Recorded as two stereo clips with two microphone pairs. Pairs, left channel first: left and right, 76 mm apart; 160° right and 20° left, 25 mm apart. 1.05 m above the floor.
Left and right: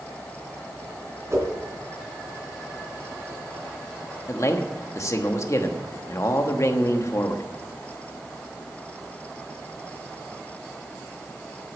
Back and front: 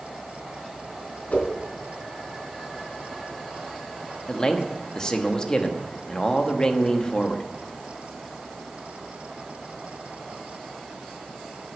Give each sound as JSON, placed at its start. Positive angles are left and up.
{"t": 1.3, "sound": "a whoosh", "azimuth_deg": -135, "distance_m": 3.0}
{"t": 4.3, "sound": "a man speaking", "azimuth_deg": 140, "distance_m": 1.3}